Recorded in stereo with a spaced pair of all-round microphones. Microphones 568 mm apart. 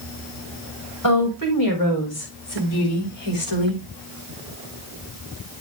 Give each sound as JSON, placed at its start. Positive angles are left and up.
{"t": 1.0, "sound": "a woman speaking", "side_deg": 35, "distance_m": 4.5}